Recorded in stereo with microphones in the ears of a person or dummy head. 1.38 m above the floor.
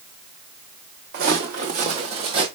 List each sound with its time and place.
1.1 s footsteps: 50° right (ahead or behind), 3.5 m; by 2.5 s 25° right (ahead or behind), 3.5 m